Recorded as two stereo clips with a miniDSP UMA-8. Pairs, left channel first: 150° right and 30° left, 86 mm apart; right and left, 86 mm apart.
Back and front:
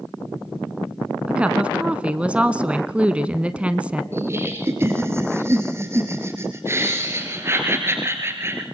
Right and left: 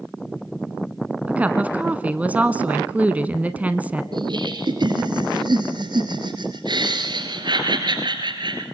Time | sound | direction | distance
1.3 | a woman speaking | 70° left | 1.0 m
4.1 | laughter | 85° left | 2 m